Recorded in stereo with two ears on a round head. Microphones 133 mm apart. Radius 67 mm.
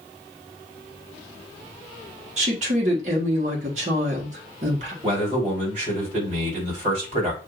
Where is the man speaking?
45° right (ahead or behind), 3 m.